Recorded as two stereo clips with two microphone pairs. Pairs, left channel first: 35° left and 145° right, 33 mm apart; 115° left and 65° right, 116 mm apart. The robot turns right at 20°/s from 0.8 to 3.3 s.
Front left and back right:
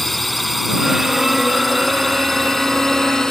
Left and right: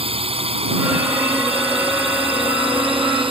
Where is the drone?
50° right; by 3.3 s 35° right.